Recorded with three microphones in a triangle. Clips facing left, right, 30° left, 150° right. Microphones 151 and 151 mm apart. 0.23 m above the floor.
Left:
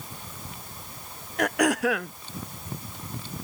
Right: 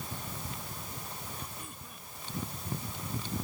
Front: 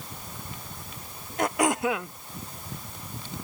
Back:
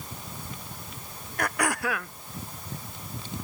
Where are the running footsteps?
I don't hear running footsteps.